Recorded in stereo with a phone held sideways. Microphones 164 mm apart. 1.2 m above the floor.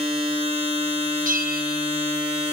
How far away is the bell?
About 0.9 m.